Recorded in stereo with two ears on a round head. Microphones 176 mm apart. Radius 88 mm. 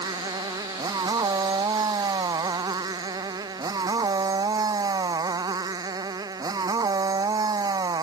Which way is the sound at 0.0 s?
20° right (ahead or behind).